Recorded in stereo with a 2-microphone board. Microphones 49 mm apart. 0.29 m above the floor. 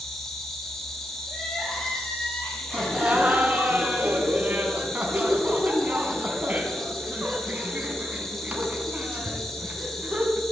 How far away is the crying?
About 7.5 m.